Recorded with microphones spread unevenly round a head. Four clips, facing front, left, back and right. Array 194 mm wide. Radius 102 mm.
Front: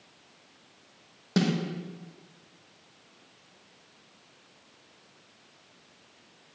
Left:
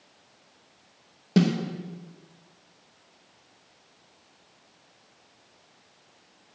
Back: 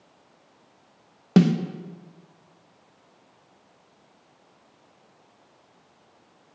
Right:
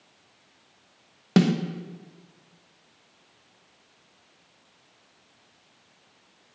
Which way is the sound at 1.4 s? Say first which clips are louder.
Right 2 dB, back 8 dB; 170° right.